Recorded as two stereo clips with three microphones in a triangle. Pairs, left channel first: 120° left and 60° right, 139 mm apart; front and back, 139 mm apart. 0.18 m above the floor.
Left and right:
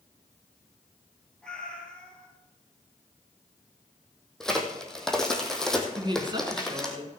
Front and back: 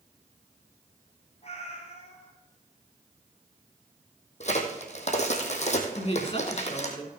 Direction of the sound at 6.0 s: 20° right.